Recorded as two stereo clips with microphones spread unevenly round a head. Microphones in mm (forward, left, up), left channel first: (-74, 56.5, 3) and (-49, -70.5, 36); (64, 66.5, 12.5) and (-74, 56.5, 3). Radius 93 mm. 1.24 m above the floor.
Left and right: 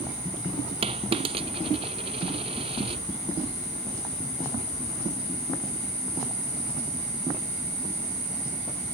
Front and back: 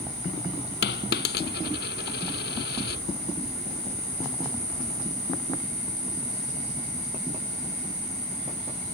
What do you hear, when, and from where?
0.8 s a dropped coin: 20° right